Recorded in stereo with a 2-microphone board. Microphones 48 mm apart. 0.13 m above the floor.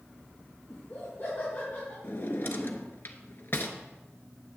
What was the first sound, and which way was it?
Laughter, 55° left (ahead or behind).